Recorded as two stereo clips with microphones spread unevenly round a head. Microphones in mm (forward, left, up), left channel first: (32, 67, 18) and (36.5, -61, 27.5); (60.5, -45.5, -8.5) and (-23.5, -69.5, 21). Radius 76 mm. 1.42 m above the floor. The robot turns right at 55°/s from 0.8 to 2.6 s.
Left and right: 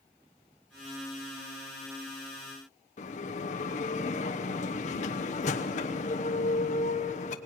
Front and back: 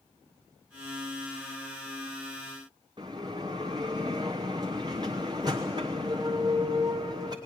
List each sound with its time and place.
3.0 s a bell: 130° left, 0.9 m